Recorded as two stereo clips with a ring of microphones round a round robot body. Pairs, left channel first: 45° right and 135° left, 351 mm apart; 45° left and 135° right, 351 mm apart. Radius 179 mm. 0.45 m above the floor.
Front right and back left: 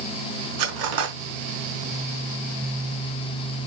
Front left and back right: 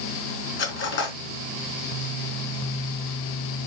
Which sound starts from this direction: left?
Cutlery clinking, at 0.6 s.